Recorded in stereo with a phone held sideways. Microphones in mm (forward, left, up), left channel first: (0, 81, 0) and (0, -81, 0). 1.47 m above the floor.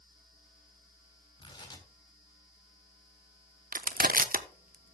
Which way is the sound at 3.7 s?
60° right (ahead or behind).